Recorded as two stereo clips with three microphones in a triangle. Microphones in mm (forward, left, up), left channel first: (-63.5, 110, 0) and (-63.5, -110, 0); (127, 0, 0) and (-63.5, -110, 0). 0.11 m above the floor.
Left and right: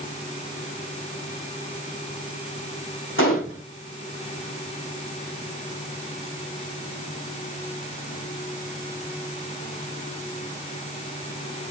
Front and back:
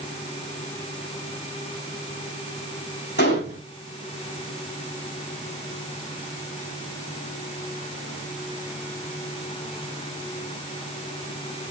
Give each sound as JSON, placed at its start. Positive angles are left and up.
{"t": 3.2, "sound": "a gunshot", "azimuth_deg": 65, "distance_m": 5.0}